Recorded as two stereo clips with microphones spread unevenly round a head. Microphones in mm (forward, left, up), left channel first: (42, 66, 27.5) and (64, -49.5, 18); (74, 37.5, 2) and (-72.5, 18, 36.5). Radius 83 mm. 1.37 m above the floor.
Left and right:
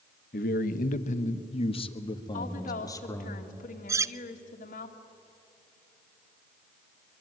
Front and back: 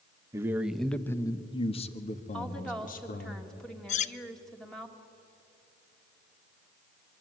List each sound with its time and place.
0.3 s a man speaking: 120° left, 1.3 m; by 3.3 s 35° left, 3 m
2.3 s a woman speaking: 95° left, 2.5 m
3.9 s cutlery clinking: 25° right, 0.5 m